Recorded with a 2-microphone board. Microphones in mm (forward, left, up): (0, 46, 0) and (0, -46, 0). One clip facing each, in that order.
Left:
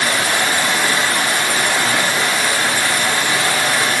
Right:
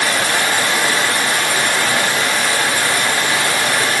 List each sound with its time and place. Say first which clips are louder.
0.0 s running water: even; 65° right (ahead or behind), 1.9 m